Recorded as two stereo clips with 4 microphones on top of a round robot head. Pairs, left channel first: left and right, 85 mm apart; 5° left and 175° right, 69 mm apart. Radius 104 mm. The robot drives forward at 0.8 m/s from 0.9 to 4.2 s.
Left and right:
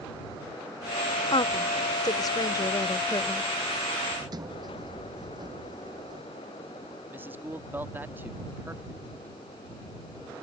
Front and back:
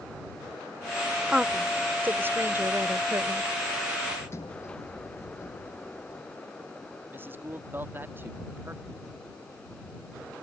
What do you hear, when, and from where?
1.3 s a woman speaking: 110° left; by 3.5 s 145° left
4.2 s a sliding door: 50° right
7.1 s a man speaking: 140° right